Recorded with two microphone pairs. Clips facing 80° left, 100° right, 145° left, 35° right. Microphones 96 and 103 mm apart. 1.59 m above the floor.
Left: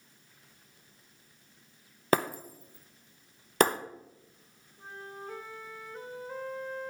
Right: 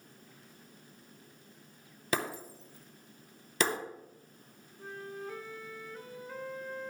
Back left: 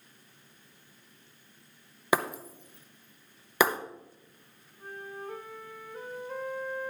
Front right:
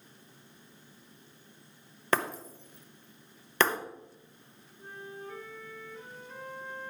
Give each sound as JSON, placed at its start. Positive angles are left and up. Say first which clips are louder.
{"t": 2.1, "sound": "breaking glass", "louder": "left 6 dB, back left 2 dB", "azimuth_deg": 65, "distance_m": 0.9}
{"t": 4.8, "sound": "a flute", "louder": "right 2 dB, back left 3 dB", "azimuth_deg": 130, "distance_m": 1.4}